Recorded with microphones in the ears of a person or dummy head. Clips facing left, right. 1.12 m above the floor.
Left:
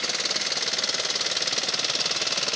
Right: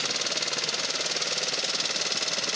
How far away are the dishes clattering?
I don't hear dishes clattering.